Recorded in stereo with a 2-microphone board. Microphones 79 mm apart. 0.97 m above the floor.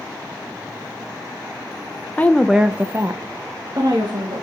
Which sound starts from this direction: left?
A woman speaking, at 2.2 s.